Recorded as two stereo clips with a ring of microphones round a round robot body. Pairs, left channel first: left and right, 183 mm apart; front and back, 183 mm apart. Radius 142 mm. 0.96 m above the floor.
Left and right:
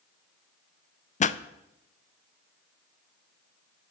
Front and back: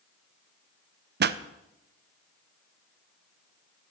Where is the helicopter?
No helicopter in this recording.